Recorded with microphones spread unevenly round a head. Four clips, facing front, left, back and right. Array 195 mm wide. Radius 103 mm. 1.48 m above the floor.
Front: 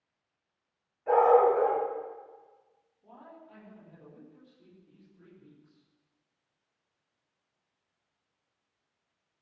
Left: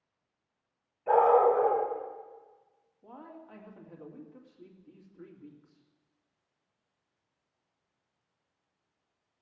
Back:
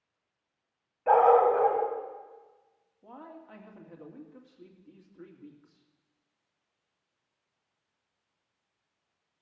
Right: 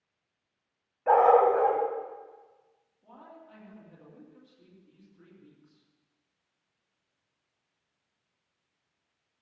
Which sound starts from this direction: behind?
A man speaking, at 3.0 s.